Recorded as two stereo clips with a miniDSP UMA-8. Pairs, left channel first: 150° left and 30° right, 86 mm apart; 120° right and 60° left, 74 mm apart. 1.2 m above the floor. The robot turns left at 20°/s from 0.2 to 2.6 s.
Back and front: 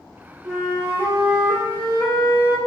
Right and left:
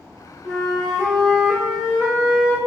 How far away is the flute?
About 0.9 m.